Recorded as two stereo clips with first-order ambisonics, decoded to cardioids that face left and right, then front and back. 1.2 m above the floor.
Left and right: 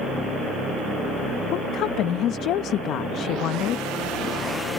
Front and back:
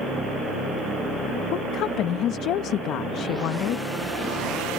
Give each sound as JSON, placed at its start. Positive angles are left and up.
{"t": 1.5, "sound": "a woman speaking", "azimuth_deg": 45}